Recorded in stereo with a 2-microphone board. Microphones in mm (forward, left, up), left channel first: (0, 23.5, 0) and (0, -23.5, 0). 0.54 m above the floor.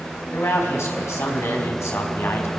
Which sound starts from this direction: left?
A man speaking, at 0.3 s.